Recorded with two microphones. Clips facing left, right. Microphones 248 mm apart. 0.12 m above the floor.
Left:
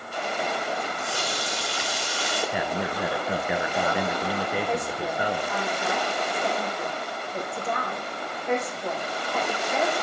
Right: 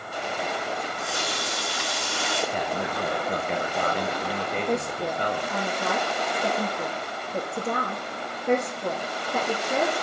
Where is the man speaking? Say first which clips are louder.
Left 1 dB; 10° left (ahead or behind), 1.3 m.